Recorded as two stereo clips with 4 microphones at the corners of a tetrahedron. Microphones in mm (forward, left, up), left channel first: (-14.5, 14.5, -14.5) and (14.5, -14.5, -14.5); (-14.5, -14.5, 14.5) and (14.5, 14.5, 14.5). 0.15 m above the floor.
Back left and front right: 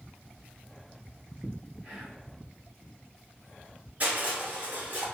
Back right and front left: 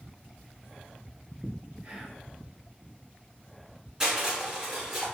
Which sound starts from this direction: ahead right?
Crushing, at 4.0 s.